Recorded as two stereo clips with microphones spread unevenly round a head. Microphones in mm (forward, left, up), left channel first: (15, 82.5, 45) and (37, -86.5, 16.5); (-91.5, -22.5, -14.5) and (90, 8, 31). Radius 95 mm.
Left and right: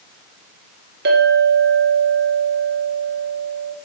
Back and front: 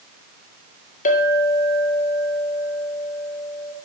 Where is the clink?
120° right, 2 m.